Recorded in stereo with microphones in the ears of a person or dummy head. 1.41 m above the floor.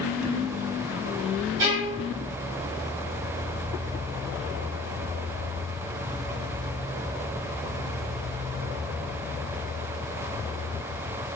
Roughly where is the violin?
Right.